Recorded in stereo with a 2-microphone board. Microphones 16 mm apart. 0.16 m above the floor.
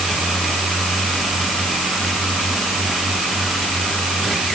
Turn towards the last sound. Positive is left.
No sound to turn to.